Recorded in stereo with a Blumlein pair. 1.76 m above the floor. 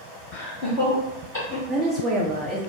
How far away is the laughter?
About 1.0 m.